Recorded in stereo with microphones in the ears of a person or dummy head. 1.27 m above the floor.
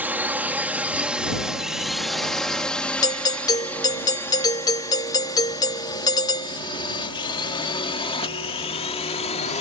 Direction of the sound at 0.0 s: 15° right (ahead or behind).